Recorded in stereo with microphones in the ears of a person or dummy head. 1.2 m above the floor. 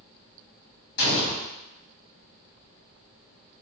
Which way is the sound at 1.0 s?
65° left (ahead or behind).